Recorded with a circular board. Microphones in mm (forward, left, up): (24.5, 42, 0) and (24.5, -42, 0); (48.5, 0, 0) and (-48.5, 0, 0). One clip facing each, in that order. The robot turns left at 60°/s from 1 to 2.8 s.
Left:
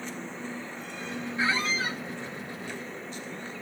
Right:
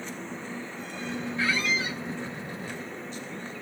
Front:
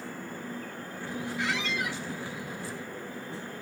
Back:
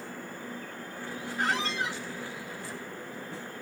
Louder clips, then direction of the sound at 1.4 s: Left 1 dB, back 3 dB; 155° left.